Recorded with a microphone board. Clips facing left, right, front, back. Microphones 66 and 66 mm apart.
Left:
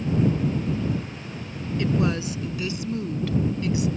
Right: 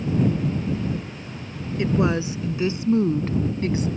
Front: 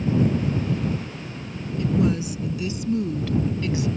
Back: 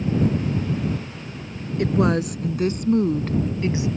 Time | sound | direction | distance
1.8 | a woman speaking | 160° right | ?